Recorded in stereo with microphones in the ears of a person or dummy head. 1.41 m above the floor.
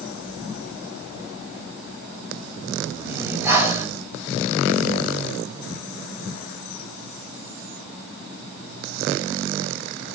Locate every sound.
3.0 s breathing: 15° right (ahead or behind), 4 m